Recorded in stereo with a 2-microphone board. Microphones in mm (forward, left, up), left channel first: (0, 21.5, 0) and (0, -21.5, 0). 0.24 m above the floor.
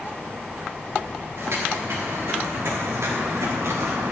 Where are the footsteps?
80° right, 3.5 m; by 4.1 s 85° right, 2 m.